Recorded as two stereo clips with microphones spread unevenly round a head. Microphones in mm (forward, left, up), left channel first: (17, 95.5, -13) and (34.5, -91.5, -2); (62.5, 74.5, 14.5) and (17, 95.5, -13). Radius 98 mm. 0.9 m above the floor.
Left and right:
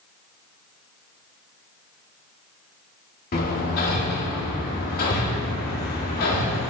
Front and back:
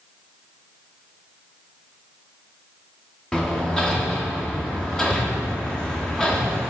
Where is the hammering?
60° left, 2 m.